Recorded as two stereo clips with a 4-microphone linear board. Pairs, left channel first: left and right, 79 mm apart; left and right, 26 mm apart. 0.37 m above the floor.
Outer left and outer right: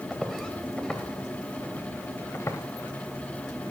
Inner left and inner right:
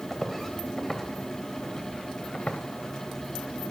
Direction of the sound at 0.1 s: Centre (ahead or behind).